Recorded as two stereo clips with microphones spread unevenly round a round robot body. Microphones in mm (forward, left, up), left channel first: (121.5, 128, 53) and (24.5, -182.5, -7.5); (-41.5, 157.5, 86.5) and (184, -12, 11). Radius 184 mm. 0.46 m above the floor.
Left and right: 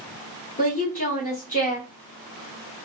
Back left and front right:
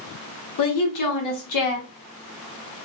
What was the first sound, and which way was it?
A woman speaking, 145° left.